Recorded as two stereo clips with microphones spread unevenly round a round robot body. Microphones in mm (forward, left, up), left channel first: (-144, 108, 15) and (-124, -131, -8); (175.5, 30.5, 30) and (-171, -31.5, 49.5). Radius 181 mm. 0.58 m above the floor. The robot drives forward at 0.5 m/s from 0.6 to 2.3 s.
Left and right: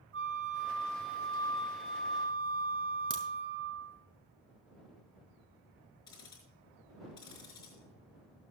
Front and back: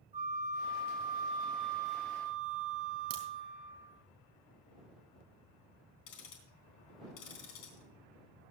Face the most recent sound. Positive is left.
turn(degrees=15)